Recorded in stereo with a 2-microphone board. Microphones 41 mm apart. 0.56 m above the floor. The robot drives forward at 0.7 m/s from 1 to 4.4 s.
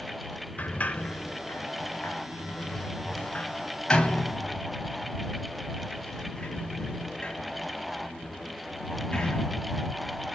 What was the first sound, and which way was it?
A sliding door, 40° left (ahead or behind).